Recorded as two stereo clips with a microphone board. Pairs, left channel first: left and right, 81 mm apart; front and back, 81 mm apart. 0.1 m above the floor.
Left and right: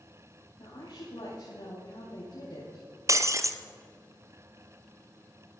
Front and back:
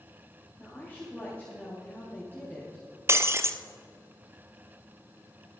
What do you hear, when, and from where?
0.6 s a woman speaking: 70° left, 7 m
3.1 s breaking glass: 130° right, 1.0 m